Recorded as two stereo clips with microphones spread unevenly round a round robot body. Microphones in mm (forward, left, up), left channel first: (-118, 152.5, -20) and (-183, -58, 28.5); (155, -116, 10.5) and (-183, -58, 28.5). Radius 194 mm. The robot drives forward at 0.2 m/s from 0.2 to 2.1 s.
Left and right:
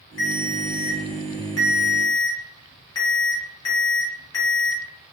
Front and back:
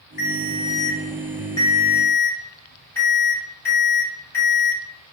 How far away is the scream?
No scream in this recording.